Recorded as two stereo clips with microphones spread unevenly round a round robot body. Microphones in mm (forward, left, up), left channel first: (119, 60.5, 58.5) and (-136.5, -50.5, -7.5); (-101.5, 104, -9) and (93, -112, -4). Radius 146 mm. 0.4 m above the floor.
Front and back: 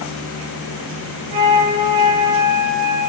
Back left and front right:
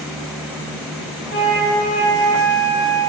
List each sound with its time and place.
1.3 s a flute: 170° right, 1.3 m